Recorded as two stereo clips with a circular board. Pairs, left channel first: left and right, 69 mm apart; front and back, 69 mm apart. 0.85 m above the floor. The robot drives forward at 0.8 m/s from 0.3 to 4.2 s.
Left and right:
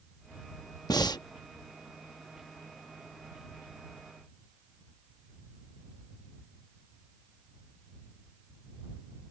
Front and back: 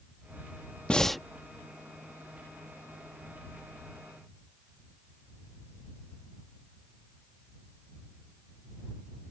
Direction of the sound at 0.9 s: 75° left.